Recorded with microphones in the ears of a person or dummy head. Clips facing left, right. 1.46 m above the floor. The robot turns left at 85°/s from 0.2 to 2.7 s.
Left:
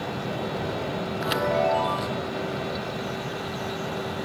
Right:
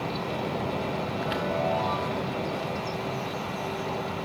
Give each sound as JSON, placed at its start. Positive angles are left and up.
{"t": 1.2, "sound": "a chime", "azimuth_deg": 110, "distance_m": 0.7}